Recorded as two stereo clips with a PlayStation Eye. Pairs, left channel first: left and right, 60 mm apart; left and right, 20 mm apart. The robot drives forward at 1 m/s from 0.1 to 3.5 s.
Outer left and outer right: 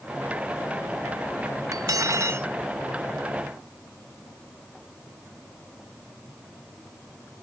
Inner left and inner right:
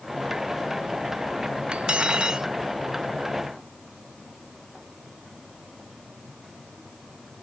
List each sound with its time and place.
1.7 s cutlery clinking: 60° right (ahead or behind); by 2.5 s 40° right (ahead or behind)